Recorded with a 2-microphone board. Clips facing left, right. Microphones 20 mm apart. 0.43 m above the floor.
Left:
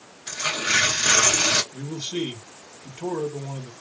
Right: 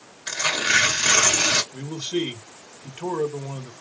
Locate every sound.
0.3 s tearing paper: 50° right (ahead or behind), 1.9 m
1.7 s a man speaking: 45° right (ahead or behind), 1.4 m